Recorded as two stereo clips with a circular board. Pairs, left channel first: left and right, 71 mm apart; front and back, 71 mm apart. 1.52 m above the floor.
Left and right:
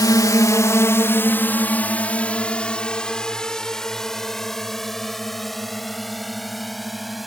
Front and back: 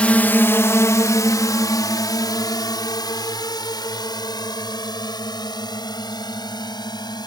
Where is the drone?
70° left; by 7.3 s straight ahead.